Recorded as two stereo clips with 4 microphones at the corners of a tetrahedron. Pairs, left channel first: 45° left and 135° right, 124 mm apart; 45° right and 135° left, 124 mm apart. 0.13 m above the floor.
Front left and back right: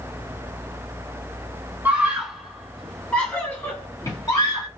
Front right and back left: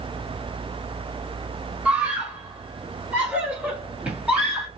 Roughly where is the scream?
Behind.